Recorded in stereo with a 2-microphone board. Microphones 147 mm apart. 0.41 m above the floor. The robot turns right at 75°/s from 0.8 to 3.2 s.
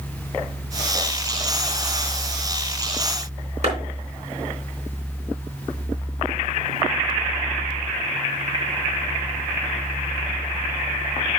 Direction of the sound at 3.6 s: 50° right (ahead or behind).